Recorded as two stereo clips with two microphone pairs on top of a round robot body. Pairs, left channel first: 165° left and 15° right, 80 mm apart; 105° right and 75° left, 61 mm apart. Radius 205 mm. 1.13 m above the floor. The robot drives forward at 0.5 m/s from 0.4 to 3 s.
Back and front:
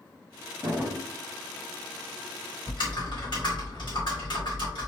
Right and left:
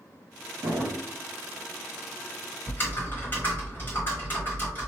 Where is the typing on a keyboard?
160° right, 2.0 m; by 4.9 s 165° right, 2 m.